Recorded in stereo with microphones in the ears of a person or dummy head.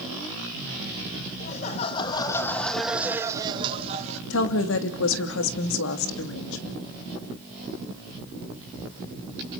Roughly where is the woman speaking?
Left.